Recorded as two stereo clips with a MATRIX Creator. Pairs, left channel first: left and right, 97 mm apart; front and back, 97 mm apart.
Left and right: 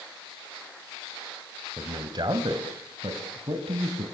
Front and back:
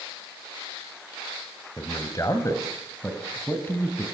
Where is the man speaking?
45° right, 2.5 m; by 4.0 s 70° right, 4 m.